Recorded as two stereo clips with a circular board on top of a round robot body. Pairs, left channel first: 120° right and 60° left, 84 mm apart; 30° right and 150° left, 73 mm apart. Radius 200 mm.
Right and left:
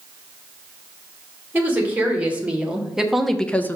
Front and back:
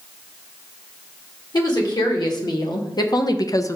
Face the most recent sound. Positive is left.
turn(degrees=-65)